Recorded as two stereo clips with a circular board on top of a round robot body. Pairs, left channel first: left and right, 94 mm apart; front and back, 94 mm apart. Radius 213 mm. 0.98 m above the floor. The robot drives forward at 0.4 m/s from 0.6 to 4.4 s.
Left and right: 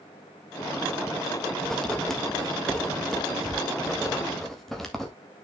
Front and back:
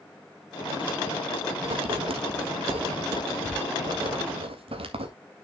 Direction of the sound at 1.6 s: 175° left.